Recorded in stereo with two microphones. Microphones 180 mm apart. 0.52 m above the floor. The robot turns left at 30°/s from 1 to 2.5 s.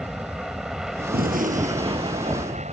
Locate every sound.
0.0 s an aircraft: 5° right; by 2.7 s 50° right
1.1 s a gunshot: 120° right; by 2.6 s 165° right